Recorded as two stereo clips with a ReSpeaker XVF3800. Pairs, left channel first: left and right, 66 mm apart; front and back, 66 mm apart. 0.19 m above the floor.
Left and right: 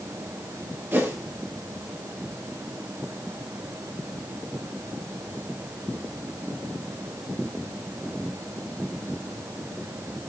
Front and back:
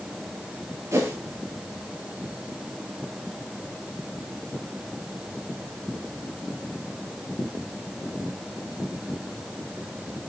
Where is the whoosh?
140° right, 3.5 m.